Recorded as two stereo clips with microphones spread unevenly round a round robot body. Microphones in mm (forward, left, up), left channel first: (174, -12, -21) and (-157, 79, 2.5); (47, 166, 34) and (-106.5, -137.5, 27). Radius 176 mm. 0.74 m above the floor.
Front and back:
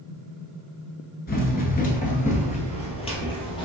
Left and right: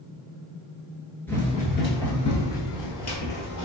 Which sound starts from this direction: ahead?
Running footsteps, at 1.3 s.